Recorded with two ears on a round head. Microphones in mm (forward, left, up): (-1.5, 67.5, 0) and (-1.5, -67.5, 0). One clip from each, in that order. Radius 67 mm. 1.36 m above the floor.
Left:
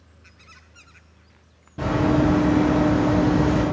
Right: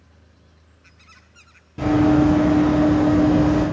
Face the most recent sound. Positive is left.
turn(degrees=40)  # may be behind; listen again after turning